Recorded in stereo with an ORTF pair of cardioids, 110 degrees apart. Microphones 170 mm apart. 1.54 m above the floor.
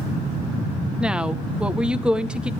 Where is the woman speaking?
5° right, 1.2 m.